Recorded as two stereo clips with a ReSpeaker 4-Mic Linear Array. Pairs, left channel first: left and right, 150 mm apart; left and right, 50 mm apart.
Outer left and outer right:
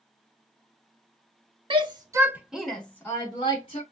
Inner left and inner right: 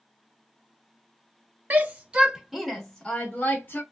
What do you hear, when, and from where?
1.7 s a shout: 35° right (ahead or behind), 1.0 m; by 3.8 s 35° left (ahead or behind), 1.2 m